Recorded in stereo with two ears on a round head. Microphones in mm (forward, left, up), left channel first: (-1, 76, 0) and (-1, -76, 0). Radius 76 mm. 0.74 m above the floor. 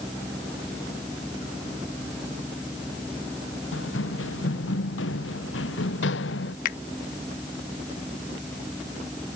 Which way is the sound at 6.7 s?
50° left (ahead or behind).